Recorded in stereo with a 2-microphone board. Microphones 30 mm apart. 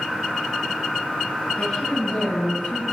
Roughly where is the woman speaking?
Left.